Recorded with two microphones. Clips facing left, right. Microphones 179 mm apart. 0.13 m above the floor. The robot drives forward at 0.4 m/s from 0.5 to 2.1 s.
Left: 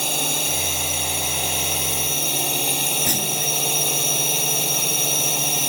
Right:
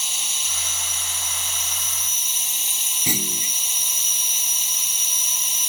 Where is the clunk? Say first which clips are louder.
Left 4 dB; 5° right (ahead or behind).